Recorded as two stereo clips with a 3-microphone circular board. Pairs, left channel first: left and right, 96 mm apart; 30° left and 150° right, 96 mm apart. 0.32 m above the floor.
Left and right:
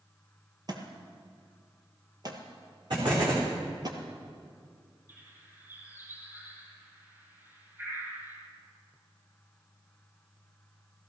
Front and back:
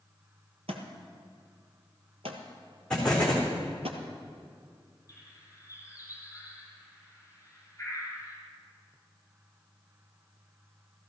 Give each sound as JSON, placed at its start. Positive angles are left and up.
{"t": 0.7, "sound": "a thud", "azimuth_deg": -140, "distance_m": 1.8}
{"t": 2.9, "sound": "an explosion", "azimuth_deg": -50, "distance_m": 4.0}
{"t": 5.1, "sound": "a bird", "azimuth_deg": -25, "distance_m": 5.0}